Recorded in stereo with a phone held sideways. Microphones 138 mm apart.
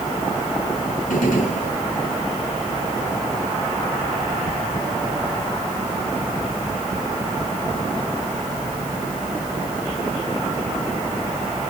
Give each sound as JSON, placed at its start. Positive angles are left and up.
{"t": 1.1, "sound": "a gunshot", "side_deg": 90, "distance_m": 6.0}